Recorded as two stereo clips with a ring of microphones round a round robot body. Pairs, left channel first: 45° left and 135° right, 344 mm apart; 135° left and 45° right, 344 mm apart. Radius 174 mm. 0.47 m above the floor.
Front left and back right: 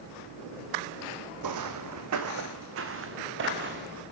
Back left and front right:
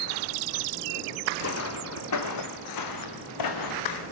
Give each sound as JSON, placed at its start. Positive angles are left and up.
{"t": 1.4, "sound": "footsteps", "azimuth_deg": -170, "distance_m": 1.9}